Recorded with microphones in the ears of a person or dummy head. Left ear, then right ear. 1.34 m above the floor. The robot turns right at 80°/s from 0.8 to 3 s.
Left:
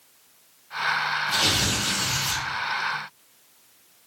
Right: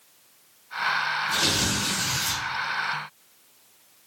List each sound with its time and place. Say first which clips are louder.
1.3 s tearing paper: left 3 dB; 170° left, 1.4 m; by 2.4 s 95° right, 1.4 m